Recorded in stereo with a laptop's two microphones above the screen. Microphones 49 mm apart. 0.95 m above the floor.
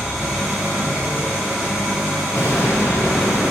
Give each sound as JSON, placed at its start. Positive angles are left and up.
{"t": 0.0, "sound": "an engine running", "side_deg": 0, "distance_m": 3.0}
{"t": 2.4, "sound": "an explosion", "side_deg": 70, "distance_m": 1.7}